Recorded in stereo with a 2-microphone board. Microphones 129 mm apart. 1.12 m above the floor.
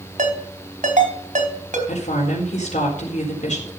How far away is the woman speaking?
About 4 m.